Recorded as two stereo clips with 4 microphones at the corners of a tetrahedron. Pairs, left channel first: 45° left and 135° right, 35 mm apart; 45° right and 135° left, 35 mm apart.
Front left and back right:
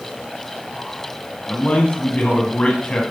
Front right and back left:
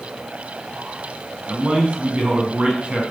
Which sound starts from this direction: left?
A man speaking, at 1.5 s.